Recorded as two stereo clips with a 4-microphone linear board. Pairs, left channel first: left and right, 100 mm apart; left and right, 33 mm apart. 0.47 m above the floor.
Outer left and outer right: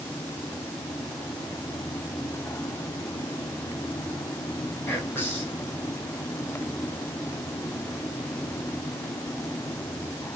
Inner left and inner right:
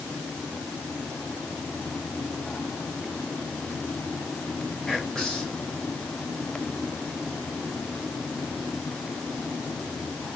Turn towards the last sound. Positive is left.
turn(degrees=25)  # may be behind; listen again after turning